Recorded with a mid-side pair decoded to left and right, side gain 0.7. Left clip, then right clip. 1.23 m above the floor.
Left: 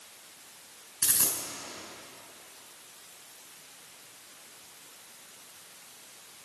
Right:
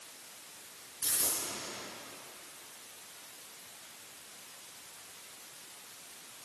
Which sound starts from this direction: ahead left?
A dropped coin, at 1.0 s.